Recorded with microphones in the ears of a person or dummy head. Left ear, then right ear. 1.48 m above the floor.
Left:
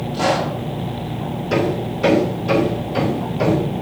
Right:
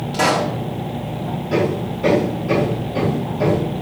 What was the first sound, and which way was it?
A pop, 50° right (ahead or behind).